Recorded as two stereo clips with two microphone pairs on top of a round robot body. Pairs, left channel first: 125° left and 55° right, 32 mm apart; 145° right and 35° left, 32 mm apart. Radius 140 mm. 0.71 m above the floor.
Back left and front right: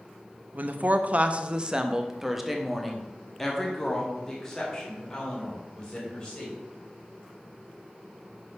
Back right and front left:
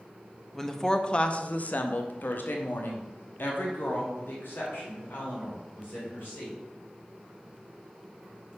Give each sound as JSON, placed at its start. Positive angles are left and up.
{"t": 0.5, "sound": "a woman speaking", "azimuth_deg": -60, "distance_m": 0.9}